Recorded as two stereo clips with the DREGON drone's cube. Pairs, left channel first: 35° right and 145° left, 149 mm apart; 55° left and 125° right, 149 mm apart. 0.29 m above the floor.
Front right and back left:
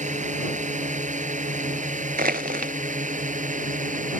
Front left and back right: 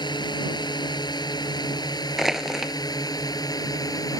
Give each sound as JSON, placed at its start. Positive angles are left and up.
{"t": 0.0, "sound": "a drone", "azimuth_deg": 115}
{"t": 2.2, "sound": "crushing", "azimuth_deg": 150}